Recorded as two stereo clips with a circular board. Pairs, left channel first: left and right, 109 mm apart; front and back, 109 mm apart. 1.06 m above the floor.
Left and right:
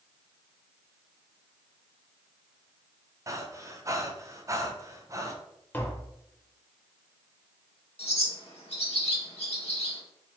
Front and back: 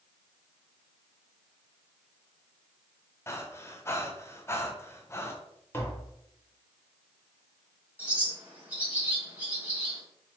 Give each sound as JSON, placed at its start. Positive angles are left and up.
{"t": 3.3, "sound": "breathing", "azimuth_deg": -50, "distance_m": 0.5}
{"t": 5.7, "sound": "tapping", "azimuth_deg": 40, "distance_m": 0.8}
{"t": 8.0, "sound": "a bird", "azimuth_deg": 110, "distance_m": 1.7}